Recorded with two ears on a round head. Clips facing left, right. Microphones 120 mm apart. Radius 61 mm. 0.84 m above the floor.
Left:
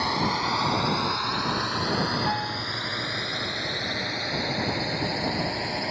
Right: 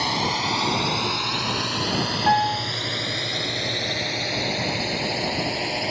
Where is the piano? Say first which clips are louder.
Right 9 dB; 75° right (ahead or behind).